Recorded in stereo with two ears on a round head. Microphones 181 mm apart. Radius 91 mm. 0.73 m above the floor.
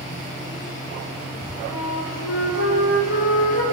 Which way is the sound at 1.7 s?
75° left (ahead or behind).